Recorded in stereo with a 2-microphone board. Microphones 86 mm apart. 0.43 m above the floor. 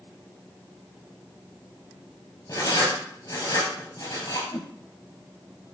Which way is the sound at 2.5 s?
50° left (ahead or behind).